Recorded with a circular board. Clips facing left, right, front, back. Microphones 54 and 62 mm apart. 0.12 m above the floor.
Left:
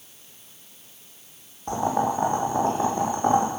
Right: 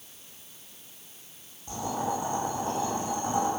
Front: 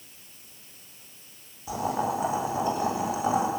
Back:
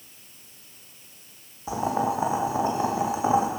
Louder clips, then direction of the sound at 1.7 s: Left 7 dB, back 2 dB; 120° left.